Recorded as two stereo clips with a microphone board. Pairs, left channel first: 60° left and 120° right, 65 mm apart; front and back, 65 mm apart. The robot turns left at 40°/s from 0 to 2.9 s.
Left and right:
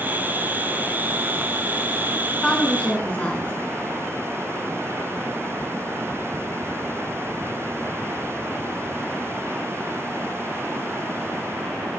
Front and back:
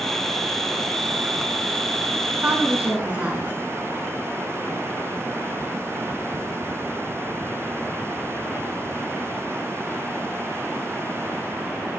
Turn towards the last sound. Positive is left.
turn(degrees=120)